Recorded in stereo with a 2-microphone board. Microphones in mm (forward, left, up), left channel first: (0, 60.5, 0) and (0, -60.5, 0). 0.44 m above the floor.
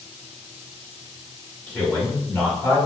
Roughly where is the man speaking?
Centre.